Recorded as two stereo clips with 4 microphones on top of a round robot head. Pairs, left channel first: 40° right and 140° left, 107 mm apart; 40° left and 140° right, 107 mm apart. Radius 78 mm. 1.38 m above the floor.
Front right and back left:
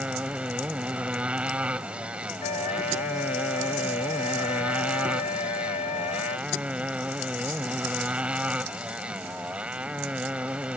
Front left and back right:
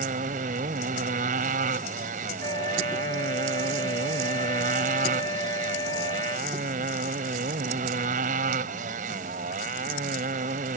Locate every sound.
0.0 s a motorcycle: 140° right
2.4 s a flute: 20° right